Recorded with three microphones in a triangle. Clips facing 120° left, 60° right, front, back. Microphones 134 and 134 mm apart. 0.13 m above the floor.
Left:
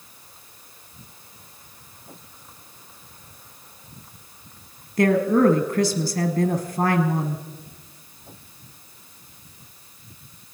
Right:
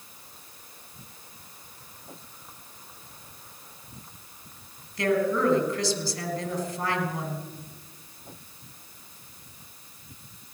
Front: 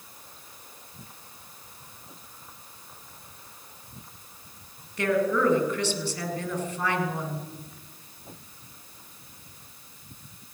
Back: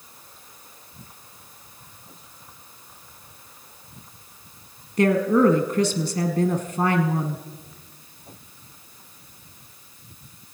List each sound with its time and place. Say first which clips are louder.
5.0 s a woman speaking: left 6 dB, back 6 dB; 140° left, 2 m